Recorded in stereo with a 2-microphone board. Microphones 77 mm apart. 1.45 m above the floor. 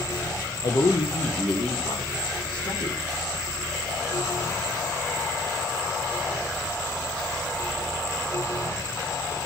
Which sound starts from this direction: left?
A man speaking, at 0.6 s.